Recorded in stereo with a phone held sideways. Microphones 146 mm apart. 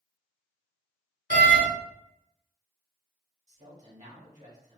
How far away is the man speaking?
About 1.9 m.